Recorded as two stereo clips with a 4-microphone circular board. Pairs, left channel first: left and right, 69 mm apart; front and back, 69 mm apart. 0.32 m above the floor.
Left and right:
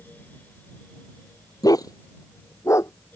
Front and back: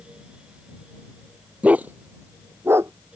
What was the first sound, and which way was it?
A dog barking, 110° left.